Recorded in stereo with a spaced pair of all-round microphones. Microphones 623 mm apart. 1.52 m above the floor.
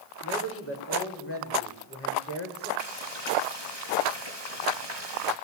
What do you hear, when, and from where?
0.2 s a man speaking: 20° left (ahead or behind), 7.5 m
2.8 s frying: 40° right (ahead or behind), 5 m